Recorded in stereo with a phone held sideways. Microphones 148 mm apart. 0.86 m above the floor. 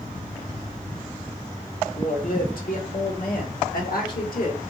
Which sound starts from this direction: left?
A woman speaking, at 1.9 s.